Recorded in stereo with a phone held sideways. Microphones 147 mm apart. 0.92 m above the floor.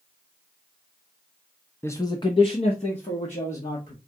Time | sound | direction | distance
1.8 | a man speaking | 15° left (ahead or behind) | 0.5 m